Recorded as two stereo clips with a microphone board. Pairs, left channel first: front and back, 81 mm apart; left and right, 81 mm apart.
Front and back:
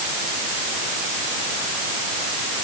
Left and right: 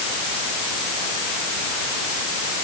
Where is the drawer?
I don't hear a drawer.